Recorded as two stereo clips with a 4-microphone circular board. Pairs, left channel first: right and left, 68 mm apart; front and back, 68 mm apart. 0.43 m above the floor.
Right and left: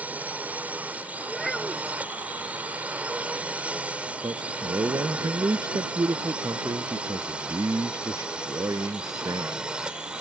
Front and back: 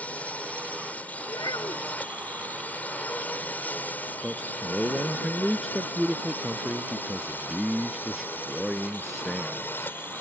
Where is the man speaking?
90° left.